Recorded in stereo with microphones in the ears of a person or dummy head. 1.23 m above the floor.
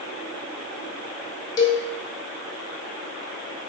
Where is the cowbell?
20° left (ahead or behind), 0.9 m.